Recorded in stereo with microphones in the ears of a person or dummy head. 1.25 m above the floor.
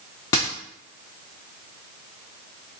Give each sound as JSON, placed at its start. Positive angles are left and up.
{"t": 0.3, "sound": "a dropped coin", "side_deg": 10, "distance_m": 0.5}